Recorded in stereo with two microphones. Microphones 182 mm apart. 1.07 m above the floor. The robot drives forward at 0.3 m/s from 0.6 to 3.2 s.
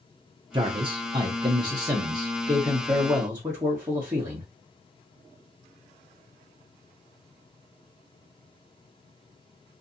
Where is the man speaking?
25° right (ahead or behind), 0.5 m; by 4.5 s 15° right (ahead or behind), 0.9 m.